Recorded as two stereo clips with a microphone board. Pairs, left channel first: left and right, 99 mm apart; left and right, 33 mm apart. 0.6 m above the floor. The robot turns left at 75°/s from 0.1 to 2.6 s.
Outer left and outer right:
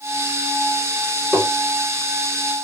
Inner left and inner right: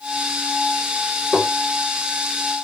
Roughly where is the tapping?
Centre.